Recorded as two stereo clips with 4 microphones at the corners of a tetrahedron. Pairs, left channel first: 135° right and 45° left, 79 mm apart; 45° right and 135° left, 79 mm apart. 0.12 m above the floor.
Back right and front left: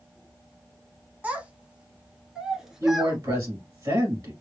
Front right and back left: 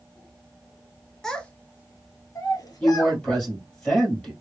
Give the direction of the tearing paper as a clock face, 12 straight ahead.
I don't hear tearing paper.